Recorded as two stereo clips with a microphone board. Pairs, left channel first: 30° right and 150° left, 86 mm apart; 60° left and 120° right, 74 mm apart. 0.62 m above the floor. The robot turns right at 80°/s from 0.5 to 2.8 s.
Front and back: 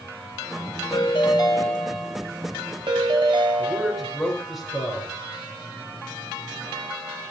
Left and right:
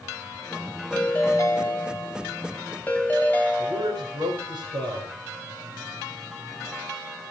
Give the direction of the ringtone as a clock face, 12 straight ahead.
1 o'clock.